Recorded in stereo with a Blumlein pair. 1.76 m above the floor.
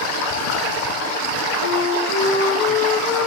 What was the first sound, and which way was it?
A flute, 65° left.